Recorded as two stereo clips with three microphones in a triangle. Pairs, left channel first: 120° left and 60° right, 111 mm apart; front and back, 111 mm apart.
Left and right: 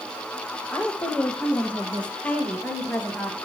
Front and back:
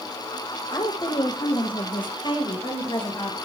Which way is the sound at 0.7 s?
40° left.